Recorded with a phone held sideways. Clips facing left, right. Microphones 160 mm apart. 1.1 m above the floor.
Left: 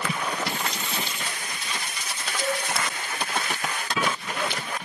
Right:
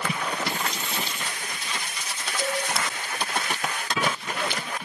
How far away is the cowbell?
About 3 m.